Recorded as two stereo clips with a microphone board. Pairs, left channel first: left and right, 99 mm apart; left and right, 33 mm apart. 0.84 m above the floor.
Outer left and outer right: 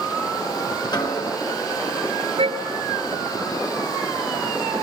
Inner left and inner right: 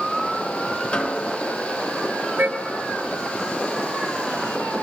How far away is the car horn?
About 5.5 m.